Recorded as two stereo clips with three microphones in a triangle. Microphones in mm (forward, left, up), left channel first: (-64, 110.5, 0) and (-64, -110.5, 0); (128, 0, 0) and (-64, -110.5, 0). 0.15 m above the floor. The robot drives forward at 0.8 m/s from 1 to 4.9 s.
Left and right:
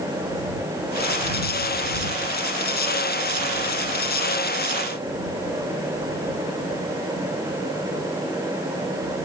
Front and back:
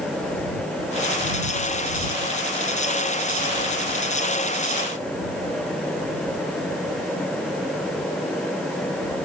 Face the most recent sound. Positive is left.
No sound to turn to.